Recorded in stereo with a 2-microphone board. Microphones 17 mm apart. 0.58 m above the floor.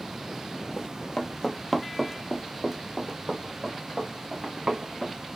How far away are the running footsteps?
About 0.8 m.